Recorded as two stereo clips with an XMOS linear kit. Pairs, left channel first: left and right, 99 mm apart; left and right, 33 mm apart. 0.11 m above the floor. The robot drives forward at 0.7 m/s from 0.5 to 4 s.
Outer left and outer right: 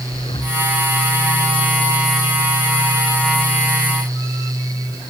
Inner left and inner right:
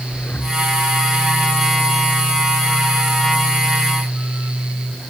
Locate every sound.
0.1 s breathing: 65° left (ahead or behind)